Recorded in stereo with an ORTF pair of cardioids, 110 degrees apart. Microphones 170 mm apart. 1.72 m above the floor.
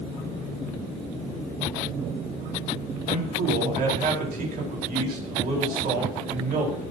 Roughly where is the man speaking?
Ahead right.